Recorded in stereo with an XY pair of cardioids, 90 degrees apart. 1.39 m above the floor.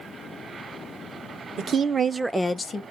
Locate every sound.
1.6 s a woman speaking: 65° right, 0.9 m; by 2.8 s 45° left, 0.7 m